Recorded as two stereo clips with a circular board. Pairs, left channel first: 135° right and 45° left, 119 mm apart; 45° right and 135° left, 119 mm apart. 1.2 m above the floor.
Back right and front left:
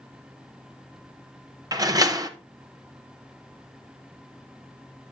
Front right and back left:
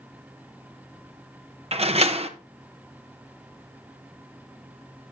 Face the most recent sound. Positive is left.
turn(degrees=105)